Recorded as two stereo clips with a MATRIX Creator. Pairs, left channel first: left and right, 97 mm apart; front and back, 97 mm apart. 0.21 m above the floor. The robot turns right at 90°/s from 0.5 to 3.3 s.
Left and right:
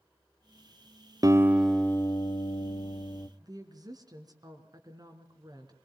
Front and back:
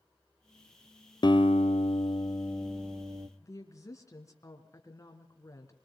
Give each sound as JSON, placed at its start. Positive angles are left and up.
{"t": 1.2, "sound": "a guitar", "azimuth_deg": -40, "distance_m": 1.2}
{"t": 3.4, "sound": "a woman speaking", "azimuth_deg": -50, "distance_m": 3.0}